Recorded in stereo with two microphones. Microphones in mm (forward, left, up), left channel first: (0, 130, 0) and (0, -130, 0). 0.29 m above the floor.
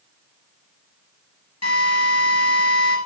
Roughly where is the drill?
Left.